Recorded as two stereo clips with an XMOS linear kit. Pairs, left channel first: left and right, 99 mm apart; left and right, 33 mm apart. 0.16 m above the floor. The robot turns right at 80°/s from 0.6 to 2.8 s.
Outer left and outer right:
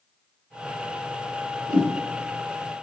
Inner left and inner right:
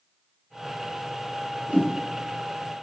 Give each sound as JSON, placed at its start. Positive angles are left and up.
{"t": 1.7, "sound": "a whoosh", "side_deg": -40, "distance_m": 3.0}